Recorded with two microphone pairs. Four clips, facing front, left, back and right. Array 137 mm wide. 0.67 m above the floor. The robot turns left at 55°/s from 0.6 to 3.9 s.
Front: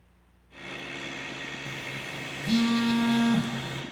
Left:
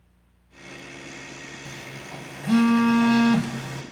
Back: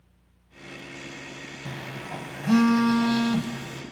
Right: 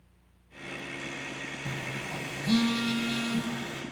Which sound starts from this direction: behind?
A phone buzzing, at 1.6 s.